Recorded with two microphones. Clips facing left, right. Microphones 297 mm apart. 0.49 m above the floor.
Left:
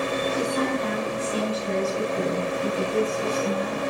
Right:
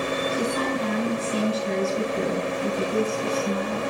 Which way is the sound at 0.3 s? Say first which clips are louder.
Left 1 dB; 30° left (ahead or behind).